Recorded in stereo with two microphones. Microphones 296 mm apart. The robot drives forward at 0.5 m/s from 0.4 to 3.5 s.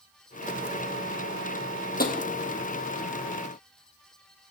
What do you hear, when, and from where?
2.0 s tapping: 30° left (ahead or behind), 0.8 m